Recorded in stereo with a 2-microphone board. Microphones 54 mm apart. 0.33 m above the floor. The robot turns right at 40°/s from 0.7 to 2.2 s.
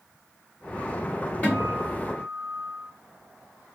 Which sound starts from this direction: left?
A guitar, at 1.4 s.